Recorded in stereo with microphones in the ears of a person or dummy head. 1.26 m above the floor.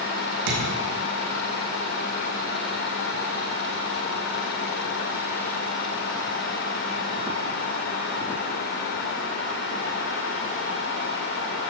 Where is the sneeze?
I don't hear a sneeze.